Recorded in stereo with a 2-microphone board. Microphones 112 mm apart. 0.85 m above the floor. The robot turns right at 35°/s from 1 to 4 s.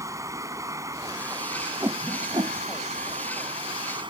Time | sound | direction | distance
0.0 | running water | 150° right | ?
1.8 | a whoosh | 25° right (ahead or behind) | ?